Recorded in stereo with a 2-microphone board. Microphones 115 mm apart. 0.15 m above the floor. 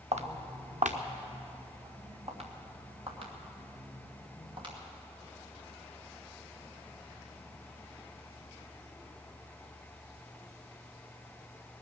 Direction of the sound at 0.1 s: 65° right (ahead or behind).